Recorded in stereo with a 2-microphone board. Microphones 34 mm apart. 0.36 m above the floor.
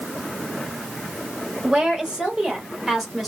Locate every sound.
1.6 s a woman speaking: 35° right (ahead or behind), 1.7 m; by 3.3 s centre (ahead or behind), 1.6 m